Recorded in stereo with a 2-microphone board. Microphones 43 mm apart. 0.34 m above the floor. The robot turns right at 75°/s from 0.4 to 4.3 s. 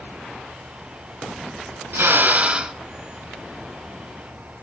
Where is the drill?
70° right, 2.5 m; by 2.8 s 10° right, 2.5 m.